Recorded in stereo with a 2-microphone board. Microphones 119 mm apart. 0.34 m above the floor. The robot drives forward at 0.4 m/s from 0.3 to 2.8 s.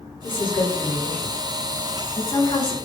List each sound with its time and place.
0.2 s a woman speaking: 45° left (ahead or behind), 3.5 m; by 2.7 s 35° left (ahead or behind), 4 m